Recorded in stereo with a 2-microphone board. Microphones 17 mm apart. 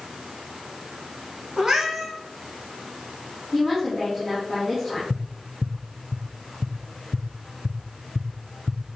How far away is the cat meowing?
About 3 m.